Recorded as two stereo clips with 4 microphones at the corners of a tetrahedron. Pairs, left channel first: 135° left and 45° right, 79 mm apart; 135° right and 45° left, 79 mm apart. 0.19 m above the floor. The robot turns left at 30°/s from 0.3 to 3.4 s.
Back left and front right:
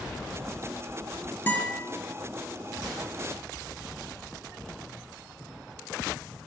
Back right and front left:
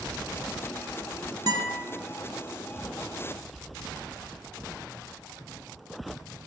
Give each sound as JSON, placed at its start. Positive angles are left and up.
{"t": 1.5, "sound": "a guitar", "azimuth_deg": 70, "distance_m": 1.1}